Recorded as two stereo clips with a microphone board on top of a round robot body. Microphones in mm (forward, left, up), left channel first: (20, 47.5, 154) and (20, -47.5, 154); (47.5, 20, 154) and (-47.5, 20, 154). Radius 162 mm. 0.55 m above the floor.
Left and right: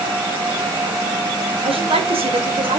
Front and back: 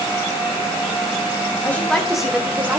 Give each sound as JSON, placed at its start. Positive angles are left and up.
{"t": 1.6, "sound": "a woman speaking", "azimuth_deg": -70, "distance_m": 2.5}